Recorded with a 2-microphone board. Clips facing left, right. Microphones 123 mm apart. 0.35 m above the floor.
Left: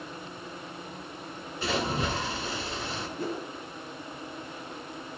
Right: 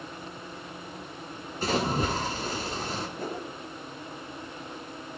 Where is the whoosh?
45° right (ahead or behind), 1.8 m.